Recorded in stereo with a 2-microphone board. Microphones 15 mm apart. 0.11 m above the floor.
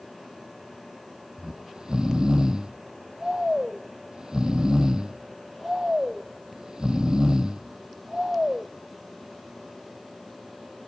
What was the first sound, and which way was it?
Snoring, 55° right (ahead or behind).